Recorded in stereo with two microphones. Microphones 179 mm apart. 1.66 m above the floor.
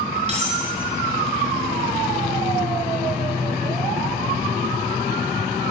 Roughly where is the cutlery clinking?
Right.